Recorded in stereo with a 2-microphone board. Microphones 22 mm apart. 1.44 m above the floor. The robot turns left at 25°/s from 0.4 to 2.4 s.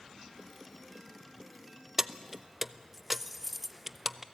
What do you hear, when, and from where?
2.0 s keys jangling: 15° right (ahead or behind), 0.5 m; by 4.2 s 5° right (ahead or behind), 0.5 m